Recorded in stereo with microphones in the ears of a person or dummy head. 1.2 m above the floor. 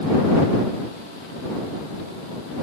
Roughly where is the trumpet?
No trumpet in this recording.